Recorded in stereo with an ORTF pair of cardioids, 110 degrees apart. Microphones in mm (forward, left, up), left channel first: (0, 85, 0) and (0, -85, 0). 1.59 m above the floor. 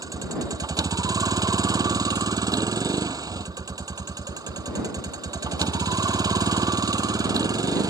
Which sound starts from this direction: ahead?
A vehicle, at 0.0 s.